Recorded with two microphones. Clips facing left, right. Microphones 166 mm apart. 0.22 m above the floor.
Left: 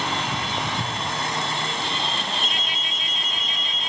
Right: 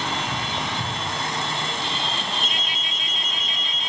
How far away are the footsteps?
About 4 m.